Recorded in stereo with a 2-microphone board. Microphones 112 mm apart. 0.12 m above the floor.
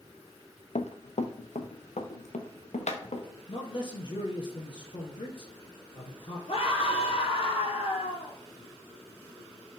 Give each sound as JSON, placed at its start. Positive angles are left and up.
{"t": 0.8, "sound": "running footsteps", "side_deg": 75, "distance_m": 0.9}
{"t": 3.5, "sound": "a man speaking", "side_deg": 45, "distance_m": 2.5}
{"t": 6.5, "sound": "a scream", "side_deg": 55, "distance_m": 3.5}